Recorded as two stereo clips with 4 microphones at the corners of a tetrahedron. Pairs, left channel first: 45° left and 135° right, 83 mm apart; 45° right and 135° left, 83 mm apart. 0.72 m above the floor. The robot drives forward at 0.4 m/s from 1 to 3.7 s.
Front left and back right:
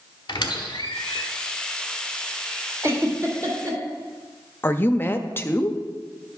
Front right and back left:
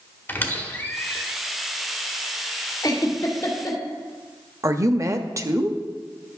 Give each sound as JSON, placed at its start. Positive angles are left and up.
{"t": 0.3, "sound": "a squeak", "azimuth_deg": 20, "distance_m": 1.2}
{"t": 2.8, "sound": "a giggle", "azimuth_deg": -85, "distance_m": 2.0}
{"t": 4.6, "sound": "a woman speaking", "azimuth_deg": 100, "distance_m": 0.6}